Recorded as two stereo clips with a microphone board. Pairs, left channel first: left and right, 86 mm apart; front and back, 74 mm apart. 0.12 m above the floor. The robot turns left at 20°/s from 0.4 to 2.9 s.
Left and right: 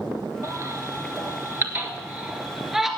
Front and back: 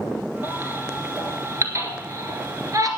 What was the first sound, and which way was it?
A baby crying, 125° right.